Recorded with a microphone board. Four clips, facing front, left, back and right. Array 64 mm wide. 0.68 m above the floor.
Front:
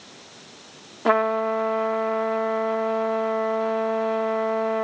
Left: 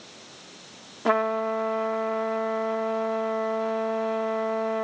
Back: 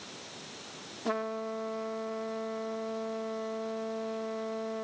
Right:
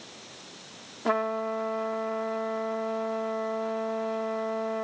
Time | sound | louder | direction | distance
1.1 | a trumpet | left 4 dB, front 13 dB | 20° left | ?